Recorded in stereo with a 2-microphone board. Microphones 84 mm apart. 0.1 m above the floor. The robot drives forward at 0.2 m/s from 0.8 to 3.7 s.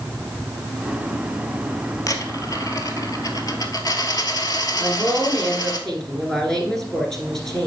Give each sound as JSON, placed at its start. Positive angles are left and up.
{"t": 2.1, "sound": "a dropped coin", "side_deg": 45, "distance_m": 1.1}
{"t": 4.8, "sound": "a woman speaking", "side_deg": 5, "distance_m": 1.4}